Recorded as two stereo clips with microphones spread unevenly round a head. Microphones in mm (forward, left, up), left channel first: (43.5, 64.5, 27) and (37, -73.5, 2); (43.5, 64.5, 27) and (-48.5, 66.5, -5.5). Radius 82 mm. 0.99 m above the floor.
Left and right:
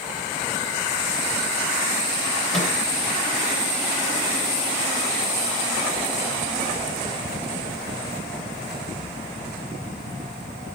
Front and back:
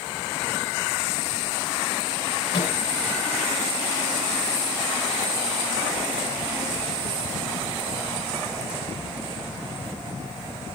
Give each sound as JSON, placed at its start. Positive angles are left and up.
{"t": 2.5, "sound": "a microwave", "azimuth_deg": 0, "distance_m": 3.0}